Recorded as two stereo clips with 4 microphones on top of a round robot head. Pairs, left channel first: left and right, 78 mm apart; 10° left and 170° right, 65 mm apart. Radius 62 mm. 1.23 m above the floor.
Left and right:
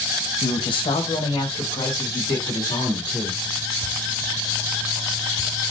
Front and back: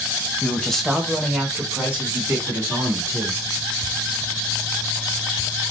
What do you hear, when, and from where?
0.4 s a man speaking: 80° left, 0.8 m; by 3.4 s 140° left, 2 m